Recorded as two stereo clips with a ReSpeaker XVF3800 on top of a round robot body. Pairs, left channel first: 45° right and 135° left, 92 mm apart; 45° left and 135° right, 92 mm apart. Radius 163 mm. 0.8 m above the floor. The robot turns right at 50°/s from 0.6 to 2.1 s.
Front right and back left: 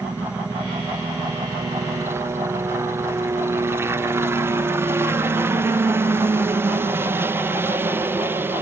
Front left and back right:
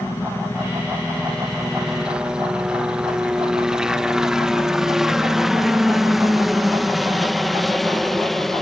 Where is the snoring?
No snoring in this recording.